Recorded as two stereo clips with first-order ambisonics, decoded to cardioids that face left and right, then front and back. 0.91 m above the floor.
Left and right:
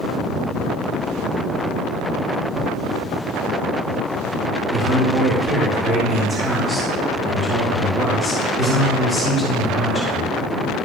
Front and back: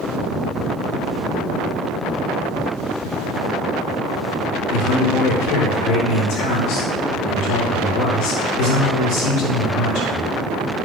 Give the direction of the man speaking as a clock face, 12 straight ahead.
12 o'clock.